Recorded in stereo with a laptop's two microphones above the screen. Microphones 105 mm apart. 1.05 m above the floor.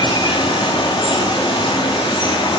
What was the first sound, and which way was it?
Running water, 45° left (ahead or behind).